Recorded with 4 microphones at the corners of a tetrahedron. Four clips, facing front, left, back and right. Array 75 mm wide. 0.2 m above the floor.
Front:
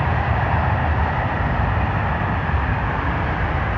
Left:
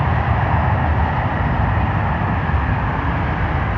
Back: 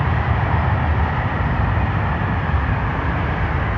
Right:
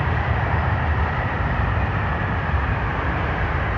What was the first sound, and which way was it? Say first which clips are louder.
An aircraft: left 4 dB, even; 80° left.